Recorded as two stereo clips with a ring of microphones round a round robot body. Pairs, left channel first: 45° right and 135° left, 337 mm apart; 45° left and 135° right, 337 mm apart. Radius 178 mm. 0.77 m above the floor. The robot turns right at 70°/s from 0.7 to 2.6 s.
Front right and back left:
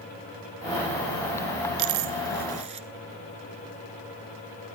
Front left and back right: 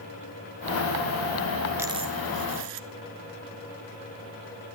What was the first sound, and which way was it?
A dropped coin, 145° left.